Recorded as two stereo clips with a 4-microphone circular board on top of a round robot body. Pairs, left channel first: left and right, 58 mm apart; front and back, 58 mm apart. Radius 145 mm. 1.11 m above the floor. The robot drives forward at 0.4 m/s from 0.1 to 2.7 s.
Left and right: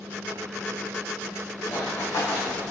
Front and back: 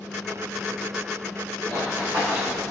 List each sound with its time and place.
1.7 s running footsteps: 130° left, 5 m; by 2.7 s 135° left, 5.5 m